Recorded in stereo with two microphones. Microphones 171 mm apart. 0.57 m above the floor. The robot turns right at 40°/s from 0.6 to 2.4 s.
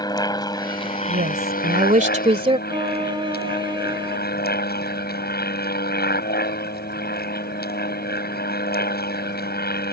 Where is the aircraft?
25° left; by 9.9 s 95° left.